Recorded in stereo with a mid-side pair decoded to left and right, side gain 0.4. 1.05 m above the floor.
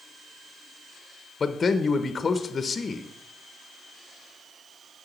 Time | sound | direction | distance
1.4 | a man speaking | 40° left | 0.6 m